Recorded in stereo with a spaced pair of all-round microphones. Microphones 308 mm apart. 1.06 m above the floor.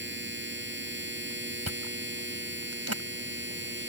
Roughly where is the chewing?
Right.